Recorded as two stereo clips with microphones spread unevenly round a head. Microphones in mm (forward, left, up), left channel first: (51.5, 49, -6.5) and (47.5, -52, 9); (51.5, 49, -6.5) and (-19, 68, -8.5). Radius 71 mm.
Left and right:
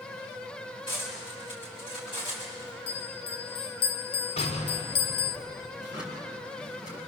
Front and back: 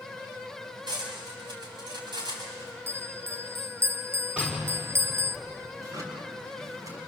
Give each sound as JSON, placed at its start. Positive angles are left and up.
{"t": 0.9, "sound": "cutlery clinking", "azimuth_deg": 150, "distance_m": 6.0}
{"t": 2.9, "sound": "a bell", "azimuth_deg": 120, "distance_m": 0.7}
{"t": 4.4, "sound": "an explosion", "azimuth_deg": 95, "distance_m": 5.5}
{"t": 5.8, "sound": "a drawer", "azimuth_deg": 130, "distance_m": 6.5}